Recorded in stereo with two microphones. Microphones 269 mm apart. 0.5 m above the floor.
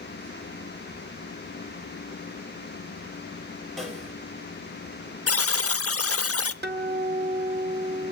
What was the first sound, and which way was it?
A snare drum, centre (ahead or behind).